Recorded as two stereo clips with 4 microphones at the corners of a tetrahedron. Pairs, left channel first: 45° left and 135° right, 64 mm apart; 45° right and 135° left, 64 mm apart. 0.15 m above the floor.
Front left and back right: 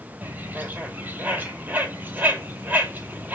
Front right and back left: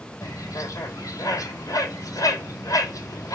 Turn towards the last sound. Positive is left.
turn(degrees=-75)